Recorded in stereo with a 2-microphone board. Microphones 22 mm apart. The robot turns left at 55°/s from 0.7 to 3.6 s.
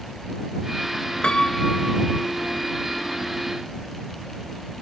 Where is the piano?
45° left; by 2.3 s 15° right.